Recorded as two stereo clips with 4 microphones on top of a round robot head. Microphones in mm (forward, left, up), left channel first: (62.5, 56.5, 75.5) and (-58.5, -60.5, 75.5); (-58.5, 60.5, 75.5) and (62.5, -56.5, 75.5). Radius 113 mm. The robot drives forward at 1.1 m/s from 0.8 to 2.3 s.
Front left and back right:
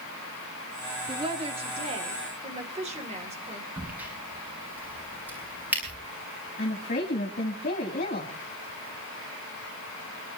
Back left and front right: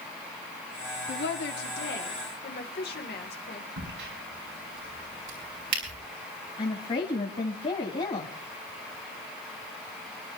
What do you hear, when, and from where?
1.1 s a woman speaking: 160° left, 1.9 m; by 3.7 s 170° left, 3 m
3.8 s a crack: 55° right, 7 m
6.6 s a woman speaking: 80° left, 3 m